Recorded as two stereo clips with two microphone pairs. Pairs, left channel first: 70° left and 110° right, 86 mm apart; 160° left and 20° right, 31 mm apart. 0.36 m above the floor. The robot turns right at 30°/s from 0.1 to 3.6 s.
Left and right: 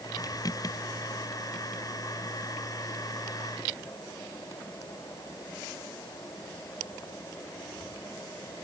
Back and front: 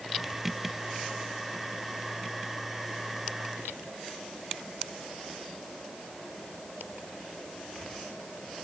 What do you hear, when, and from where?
Only background noise.